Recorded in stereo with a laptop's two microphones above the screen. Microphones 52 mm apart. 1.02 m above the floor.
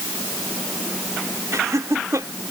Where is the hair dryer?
No hair dryer in this recording.